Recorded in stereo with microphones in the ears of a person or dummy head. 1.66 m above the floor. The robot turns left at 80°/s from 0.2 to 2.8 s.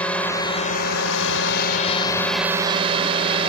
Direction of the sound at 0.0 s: 175° left.